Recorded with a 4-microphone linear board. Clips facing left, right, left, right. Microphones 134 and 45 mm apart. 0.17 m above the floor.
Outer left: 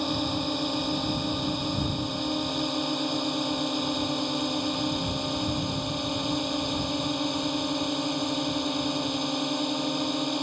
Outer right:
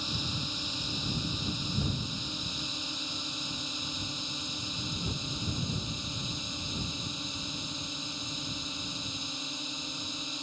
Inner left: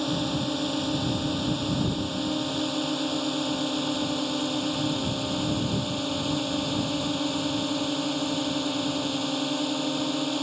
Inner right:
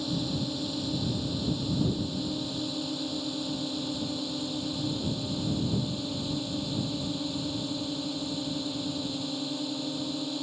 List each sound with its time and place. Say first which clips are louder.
0.0 s a drone: outer left 11 dB, inner left 4 dB; 65° left (ahead or behind); by 10.4 s 75° left (ahead or behind)